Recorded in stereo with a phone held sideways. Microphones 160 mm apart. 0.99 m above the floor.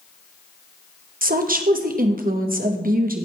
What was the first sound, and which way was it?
A woman speaking, 65° right (ahead or behind).